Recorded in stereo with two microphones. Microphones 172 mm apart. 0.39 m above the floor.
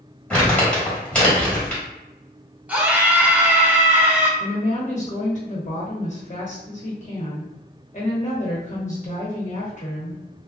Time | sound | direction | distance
0.3 | crumpling | 5° left (ahead or behind) | 1.6 m
2.7 | a scream | 10° right (ahead or behind) | 0.9 m
4.4 | a woman speaking | 45° left (ahead or behind) | 1.1 m